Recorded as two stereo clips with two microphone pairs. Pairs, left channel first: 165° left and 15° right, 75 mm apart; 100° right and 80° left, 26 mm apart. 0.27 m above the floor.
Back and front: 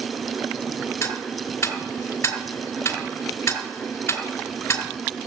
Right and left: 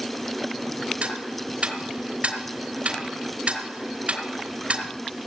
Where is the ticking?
115° left, 4 m.